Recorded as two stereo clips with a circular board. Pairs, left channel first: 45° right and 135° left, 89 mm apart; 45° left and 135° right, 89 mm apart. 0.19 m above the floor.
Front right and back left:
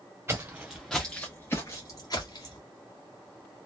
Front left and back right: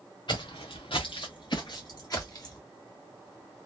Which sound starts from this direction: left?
Footsteps, at 0.3 s.